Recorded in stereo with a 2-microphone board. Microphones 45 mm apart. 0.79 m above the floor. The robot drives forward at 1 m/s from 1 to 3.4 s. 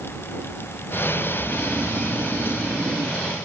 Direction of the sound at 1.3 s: 85° right.